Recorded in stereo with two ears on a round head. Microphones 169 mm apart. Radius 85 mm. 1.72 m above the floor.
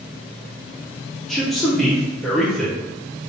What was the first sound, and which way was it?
A man speaking, centre (ahead or behind).